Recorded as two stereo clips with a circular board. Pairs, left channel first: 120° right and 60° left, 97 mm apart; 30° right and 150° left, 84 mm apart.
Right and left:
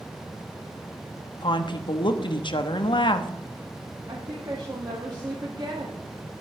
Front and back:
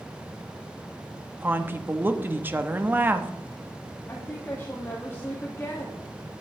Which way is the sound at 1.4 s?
145° right.